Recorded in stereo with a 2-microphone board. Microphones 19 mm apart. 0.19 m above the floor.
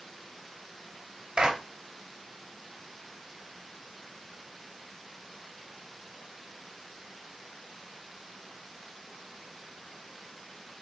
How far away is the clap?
About 3.5 m.